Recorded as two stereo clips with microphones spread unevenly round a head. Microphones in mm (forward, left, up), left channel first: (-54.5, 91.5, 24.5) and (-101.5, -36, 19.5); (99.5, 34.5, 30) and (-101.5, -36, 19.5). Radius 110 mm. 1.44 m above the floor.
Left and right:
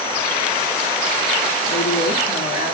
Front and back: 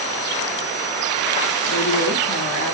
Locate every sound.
1.7 s a woman speaking: 60° left, 3 m